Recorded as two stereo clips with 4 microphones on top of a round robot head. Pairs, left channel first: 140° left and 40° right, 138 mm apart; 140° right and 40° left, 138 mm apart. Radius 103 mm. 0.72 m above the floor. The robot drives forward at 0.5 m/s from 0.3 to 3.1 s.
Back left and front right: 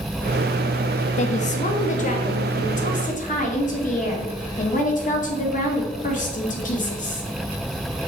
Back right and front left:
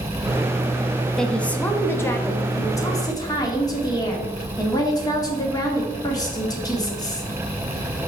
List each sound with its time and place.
1.2 s a woman speaking: 135° left, 1.1 m; by 7.3 s 160° left, 1.8 m